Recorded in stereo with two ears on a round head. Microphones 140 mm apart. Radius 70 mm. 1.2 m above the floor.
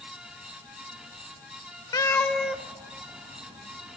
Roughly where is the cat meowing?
Left.